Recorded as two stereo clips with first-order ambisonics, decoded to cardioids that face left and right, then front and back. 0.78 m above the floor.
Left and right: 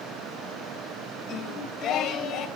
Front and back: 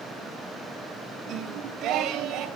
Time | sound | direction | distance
1.3 | singing | 145° left | 1.6 m